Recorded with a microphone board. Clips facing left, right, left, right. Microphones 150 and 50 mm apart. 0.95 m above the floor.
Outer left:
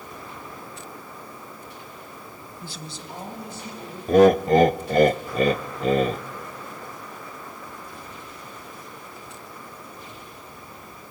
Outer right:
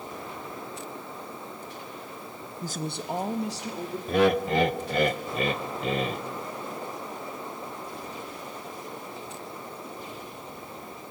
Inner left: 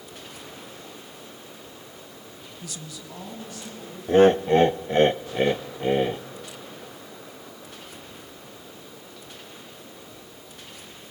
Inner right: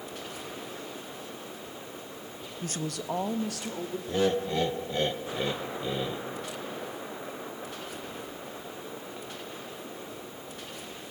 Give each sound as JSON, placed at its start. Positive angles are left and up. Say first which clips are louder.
{"t": 2.6, "sound": "a woman speaking", "louder": "outer right 8 dB, inner right 8 dB", "side_deg": -30, "distance_m": 0.6}
{"t": 4.1, "sound": "laughter", "louder": "outer left 8 dB, inner left 11 dB", "side_deg": 40, "distance_m": 0.5}